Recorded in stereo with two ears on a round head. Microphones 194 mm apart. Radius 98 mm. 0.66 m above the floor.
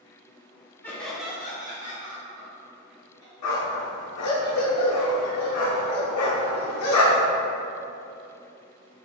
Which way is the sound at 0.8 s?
10° left (ahead or behind).